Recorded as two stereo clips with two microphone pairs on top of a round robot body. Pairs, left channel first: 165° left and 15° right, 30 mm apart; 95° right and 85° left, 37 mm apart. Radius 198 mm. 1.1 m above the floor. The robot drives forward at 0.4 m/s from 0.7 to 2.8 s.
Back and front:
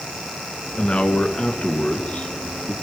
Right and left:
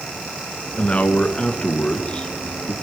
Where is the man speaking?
150° right, 1.7 m; by 2.7 s 160° right, 2.5 m.